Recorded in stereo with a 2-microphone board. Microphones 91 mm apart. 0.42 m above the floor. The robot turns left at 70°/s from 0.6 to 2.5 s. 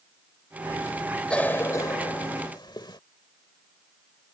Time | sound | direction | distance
1.3 | a cough | 10° left (ahead or behind) | ?